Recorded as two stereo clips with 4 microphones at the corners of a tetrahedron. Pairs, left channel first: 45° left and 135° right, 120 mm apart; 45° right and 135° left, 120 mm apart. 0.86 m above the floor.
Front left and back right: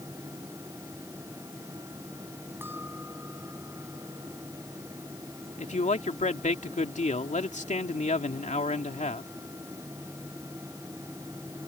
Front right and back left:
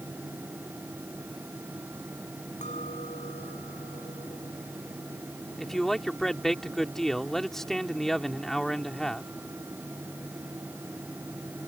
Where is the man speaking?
40° left.